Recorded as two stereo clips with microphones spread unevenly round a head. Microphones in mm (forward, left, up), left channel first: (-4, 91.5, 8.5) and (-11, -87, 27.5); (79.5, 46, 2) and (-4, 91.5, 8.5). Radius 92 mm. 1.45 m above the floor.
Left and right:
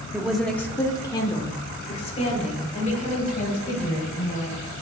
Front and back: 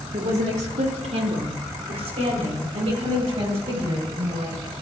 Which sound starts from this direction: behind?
A woman speaking, at 0.1 s.